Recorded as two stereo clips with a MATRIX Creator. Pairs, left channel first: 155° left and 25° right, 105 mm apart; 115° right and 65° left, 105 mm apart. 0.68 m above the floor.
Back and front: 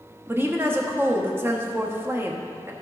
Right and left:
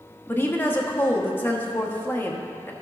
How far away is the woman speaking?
About 1.0 m.